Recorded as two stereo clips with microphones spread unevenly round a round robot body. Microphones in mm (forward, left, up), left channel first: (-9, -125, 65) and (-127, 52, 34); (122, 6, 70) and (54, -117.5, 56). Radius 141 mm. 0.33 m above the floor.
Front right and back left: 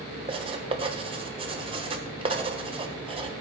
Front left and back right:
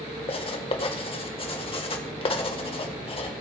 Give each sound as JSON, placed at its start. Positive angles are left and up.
{"t": 0.3, "sound": "writing", "azimuth_deg": 90, "distance_m": 1.3}